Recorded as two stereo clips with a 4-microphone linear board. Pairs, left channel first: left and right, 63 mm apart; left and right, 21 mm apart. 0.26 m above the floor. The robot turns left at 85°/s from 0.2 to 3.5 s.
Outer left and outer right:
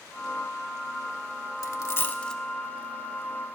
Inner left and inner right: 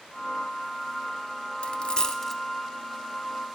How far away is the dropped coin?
About 0.5 m.